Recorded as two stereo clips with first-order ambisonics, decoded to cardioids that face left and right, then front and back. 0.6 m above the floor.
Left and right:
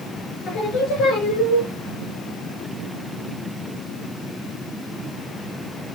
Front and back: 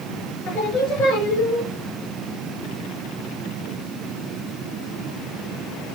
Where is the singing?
25° left, 3.5 m.